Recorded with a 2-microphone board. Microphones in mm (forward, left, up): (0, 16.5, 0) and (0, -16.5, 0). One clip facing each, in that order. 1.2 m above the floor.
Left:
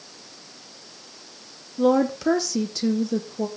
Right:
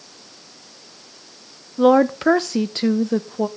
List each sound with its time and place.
1.8 s a woman speaking: 45° right (ahead or behind), 0.7 m